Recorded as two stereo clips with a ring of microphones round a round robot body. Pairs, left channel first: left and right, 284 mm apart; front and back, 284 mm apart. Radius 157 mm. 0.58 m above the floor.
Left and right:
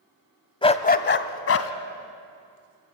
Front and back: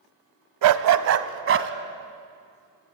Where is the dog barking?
165° left, 1.1 m; by 1.7 s 130° left, 1.6 m.